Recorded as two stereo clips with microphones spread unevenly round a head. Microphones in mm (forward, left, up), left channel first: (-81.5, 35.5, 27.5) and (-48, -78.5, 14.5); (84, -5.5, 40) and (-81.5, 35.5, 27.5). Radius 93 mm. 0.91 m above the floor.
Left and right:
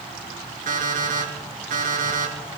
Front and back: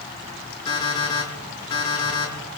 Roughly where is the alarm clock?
Right.